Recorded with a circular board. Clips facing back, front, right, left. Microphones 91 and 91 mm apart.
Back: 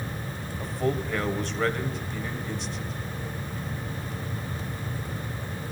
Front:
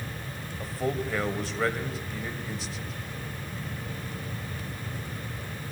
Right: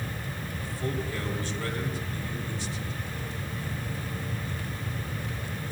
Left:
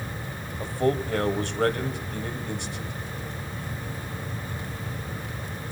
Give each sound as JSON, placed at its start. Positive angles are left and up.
{"t": 0.6, "sound": "a man speaking", "azimuth_deg": 85, "distance_m": 2.5}